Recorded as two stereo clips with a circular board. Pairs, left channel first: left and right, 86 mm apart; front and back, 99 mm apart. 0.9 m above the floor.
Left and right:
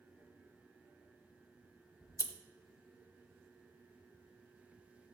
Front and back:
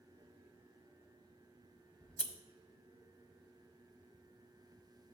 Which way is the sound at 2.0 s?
75° left.